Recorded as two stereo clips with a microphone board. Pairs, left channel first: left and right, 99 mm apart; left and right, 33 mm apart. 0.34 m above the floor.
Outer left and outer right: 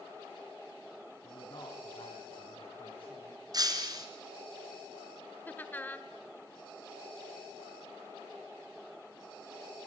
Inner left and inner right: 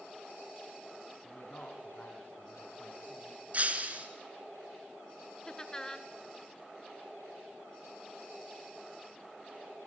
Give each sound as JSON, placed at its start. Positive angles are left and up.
{"t": 1.2, "sound": "a man speaking", "side_deg": 60, "distance_m": 3.5}
{"t": 3.5, "sound": "breaking glass", "side_deg": -40, "distance_m": 2.5}
{"t": 5.5, "sound": "laughter", "side_deg": 20, "distance_m": 1.1}